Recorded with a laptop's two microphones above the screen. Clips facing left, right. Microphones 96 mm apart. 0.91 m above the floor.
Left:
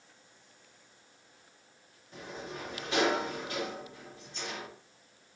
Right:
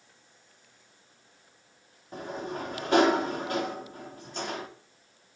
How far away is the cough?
I don't hear a cough.